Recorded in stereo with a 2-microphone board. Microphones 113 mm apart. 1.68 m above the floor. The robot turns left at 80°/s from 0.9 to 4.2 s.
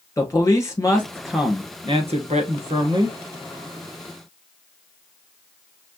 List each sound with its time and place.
0.2 s a man speaking: 25° left, 2.0 m; by 3.2 s 155° right, 2.0 m